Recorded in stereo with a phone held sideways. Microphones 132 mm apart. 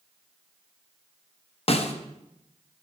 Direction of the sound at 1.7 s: 50° left (ahead or behind).